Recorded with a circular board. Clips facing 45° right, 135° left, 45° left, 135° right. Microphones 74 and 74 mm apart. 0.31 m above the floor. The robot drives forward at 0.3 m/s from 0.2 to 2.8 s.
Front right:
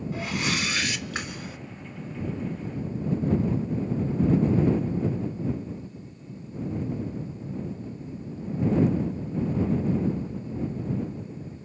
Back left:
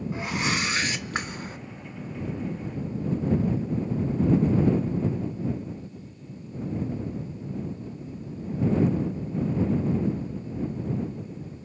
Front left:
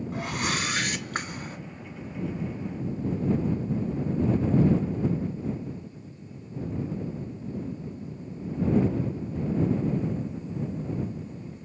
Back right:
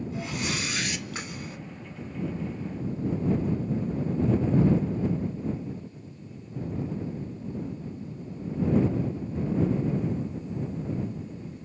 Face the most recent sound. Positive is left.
turn(degrees=110)